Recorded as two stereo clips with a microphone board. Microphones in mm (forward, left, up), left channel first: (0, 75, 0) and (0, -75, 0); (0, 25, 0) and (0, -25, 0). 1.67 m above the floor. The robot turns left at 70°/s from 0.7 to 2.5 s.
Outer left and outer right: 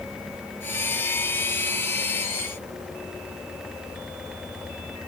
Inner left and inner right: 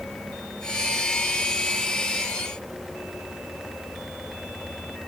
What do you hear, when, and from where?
Only background noise.